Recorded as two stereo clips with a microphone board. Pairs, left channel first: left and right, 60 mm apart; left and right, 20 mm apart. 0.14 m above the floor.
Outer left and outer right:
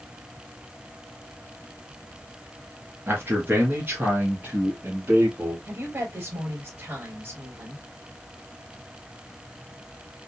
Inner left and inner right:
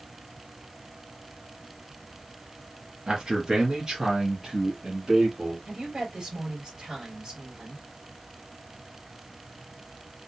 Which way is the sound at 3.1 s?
35° right (ahead or behind).